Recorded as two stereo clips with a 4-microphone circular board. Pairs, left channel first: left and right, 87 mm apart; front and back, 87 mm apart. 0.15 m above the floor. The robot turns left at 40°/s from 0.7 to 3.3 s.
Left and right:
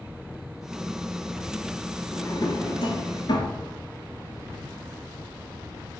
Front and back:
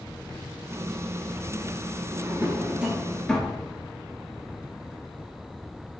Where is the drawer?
130° left, 1.1 m; by 3.6 s 80° left, 1.1 m.